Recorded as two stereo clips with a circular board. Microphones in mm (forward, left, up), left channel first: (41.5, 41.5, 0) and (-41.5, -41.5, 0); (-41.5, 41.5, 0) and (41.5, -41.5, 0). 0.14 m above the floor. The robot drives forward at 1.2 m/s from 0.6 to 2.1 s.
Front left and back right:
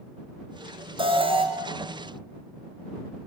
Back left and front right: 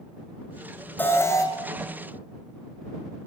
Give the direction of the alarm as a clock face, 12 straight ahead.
5 o'clock.